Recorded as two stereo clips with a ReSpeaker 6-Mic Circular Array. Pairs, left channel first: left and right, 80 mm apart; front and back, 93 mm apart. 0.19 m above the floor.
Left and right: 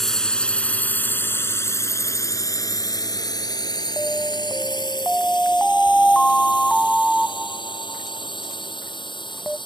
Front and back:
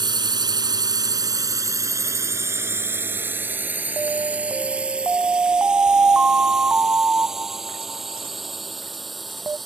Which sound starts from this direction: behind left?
An alarm, at 4.0 s.